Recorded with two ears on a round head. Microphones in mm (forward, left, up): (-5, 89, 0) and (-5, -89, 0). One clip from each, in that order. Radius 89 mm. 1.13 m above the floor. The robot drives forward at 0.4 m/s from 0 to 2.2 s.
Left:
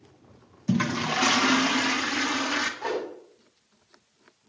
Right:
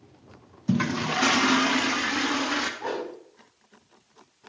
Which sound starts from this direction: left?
A whoosh, at 2.8 s.